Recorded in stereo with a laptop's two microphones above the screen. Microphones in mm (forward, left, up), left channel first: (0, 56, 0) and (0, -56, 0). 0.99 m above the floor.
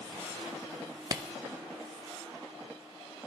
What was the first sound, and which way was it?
A clap, 30° right (ahead or behind).